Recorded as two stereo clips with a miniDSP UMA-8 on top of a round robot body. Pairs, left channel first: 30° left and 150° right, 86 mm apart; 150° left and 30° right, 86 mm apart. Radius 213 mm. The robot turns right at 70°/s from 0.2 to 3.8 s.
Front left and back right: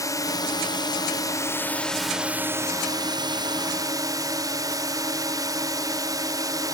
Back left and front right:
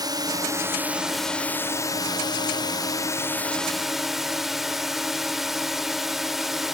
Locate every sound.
0.0 s a drone: 10° right; by 6.7 s 115° right